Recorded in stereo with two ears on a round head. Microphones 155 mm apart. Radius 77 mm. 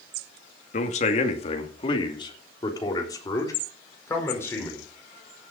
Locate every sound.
0.7 s a man speaking: 45° left (ahead or behind), 2 m; by 4.9 s 15° left (ahead or behind), 4.5 m